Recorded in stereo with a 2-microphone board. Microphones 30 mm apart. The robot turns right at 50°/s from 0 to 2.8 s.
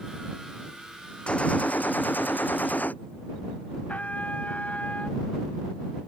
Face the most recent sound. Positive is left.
turn(degrees=55)  # may be behind; listen again after turning